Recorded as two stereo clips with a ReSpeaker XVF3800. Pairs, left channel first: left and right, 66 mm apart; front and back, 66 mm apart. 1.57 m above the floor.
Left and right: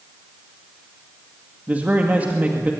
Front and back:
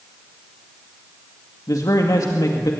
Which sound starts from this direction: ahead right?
A man speaking, at 1.7 s.